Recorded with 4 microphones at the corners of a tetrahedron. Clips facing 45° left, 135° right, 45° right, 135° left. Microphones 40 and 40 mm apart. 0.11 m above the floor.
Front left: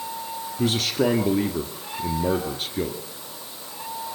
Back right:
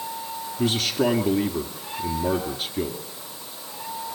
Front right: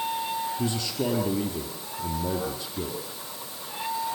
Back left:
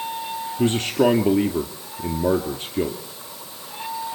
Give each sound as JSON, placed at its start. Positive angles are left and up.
{"t": 0.6, "sound": "a man speaking", "azimuth_deg": 125, "distance_m": 1.7}